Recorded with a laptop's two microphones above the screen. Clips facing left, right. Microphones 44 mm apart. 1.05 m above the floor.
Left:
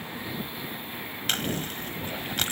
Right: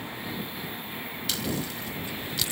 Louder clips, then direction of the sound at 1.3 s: Left 2 dB; 50° left (ahead or behind).